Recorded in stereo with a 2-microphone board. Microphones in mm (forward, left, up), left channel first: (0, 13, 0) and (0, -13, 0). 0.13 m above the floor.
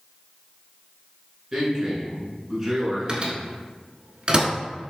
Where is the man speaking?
10° right (ahead or behind), 1.8 m.